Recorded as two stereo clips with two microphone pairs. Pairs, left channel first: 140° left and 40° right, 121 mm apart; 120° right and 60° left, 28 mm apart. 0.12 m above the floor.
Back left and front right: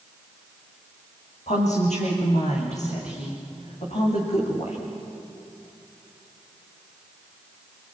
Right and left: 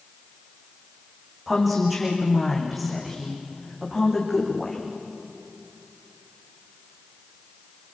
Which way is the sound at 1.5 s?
145° left.